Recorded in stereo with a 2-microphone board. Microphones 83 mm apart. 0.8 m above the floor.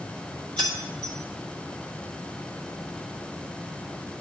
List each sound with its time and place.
0.6 s keys jangling: 70° right (ahead or behind), 2.5 m